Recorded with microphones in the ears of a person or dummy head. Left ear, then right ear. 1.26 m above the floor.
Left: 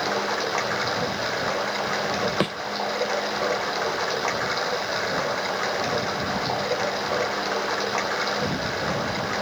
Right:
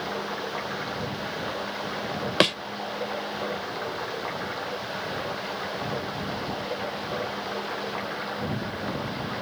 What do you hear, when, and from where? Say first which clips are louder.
0.0 s running water: left 6 dB; 90° left
2.4 s a thud: right 4 dB; 20° right (ahead or behind)